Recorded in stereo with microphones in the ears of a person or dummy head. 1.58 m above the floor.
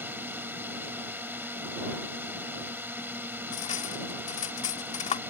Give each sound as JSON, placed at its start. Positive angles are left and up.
{"t": 0.0, "sound": "a drone", "side_deg": -10}
{"t": 3.5, "sound": "cutlery clinking", "side_deg": 35}